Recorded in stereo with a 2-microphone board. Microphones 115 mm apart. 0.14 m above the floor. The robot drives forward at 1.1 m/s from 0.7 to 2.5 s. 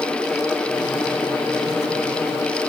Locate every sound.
Only background noise.